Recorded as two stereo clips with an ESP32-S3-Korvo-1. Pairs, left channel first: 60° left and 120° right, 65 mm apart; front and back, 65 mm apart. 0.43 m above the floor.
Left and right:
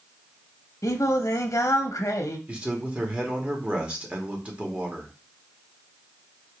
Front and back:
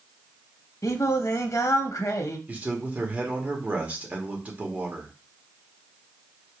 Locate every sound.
0.8 s singing: 30° left, 0.6 m
2.5 s a man speaking: 165° right, 1.1 m